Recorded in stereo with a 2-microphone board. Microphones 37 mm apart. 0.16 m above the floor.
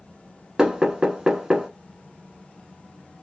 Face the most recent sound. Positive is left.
turn(degrees=-20)  # may be behind; listen again after turning